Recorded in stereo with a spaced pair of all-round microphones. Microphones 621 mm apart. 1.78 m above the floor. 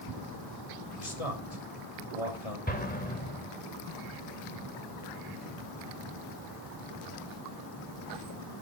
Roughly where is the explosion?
Centre.